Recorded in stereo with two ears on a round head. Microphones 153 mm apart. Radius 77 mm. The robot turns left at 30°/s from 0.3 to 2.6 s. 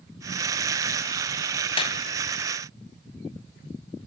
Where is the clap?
30° left (ahead or behind), 2 m; by 2.0 s 25° left (ahead or behind), 2 m.